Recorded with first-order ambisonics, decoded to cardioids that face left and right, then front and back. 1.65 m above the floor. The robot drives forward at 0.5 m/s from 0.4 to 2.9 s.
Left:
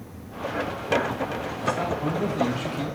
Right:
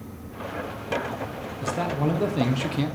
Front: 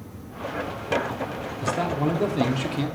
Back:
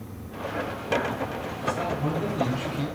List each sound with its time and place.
1.6 s a man speaking: 40° right, 1.3 m; by 3.0 s 70° right, 0.9 m